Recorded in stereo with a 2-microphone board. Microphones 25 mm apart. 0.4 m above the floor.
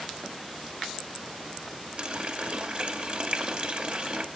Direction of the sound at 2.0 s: 45° right (ahead or behind).